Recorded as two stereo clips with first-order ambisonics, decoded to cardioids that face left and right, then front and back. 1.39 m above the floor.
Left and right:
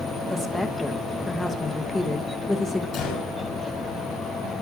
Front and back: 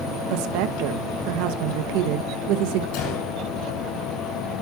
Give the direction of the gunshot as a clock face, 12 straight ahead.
11 o'clock.